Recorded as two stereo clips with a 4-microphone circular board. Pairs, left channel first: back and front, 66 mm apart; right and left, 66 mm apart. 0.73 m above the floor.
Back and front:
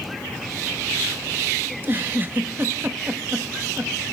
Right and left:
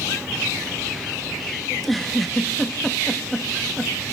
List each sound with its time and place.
1.7 s a giggle: 5° right, 0.9 m